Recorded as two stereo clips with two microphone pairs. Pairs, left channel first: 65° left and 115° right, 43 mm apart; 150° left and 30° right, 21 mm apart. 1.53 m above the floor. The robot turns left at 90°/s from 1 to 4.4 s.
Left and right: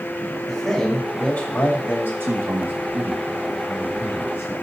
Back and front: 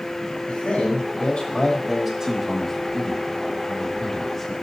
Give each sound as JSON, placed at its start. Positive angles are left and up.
{"t": 0.5, "sound": "a man speaking", "azimuth_deg": 160, "distance_m": 2.5}
{"t": 2.2, "sound": "a man speaking", "azimuth_deg": -90, "distance_m": 1.7}